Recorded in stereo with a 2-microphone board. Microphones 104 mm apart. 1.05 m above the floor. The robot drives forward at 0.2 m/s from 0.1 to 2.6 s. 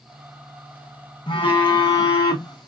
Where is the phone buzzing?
50° left (ahead or behind), 1.5 m; by 2.7 s 45° left (ahead or behind), 1.7 m.